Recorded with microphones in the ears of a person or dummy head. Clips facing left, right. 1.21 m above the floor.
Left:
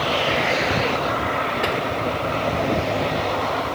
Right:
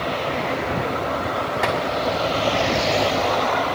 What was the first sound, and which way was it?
Tapping, 60° right (ahead or behind).